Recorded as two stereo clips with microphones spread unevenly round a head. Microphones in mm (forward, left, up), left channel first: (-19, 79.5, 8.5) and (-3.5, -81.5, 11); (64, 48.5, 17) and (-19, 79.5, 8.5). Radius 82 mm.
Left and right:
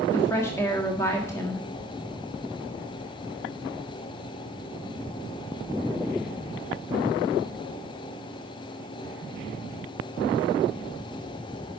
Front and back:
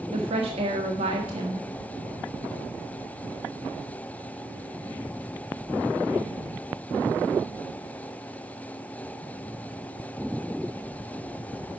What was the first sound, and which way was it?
A woman speaking, 170° left.